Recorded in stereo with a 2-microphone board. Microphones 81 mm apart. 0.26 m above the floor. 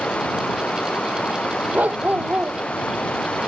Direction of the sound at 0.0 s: 15° left (ahead or behind).